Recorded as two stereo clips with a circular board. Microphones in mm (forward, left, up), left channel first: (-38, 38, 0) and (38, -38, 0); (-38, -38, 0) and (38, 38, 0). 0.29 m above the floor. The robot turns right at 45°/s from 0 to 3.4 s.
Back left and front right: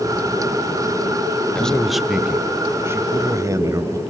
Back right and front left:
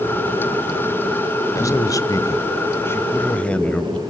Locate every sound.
1.6 s a man speaking: 150° right, 1.5 m; by 4.0 s 70° right, 1.5 m